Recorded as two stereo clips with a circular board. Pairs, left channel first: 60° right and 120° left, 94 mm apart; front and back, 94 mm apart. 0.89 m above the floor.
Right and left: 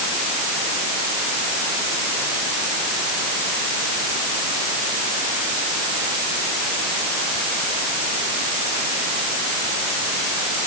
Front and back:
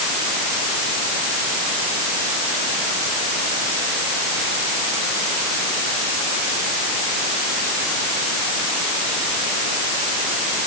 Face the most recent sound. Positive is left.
No sound to turn to.